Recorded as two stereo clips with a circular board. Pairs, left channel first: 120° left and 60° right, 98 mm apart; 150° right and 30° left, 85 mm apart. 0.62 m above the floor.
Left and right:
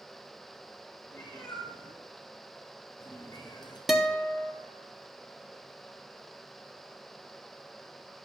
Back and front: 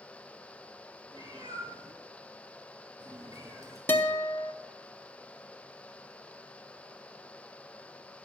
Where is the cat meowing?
50° left, 4.5 m; by 3.8 s 80° left, 2 m.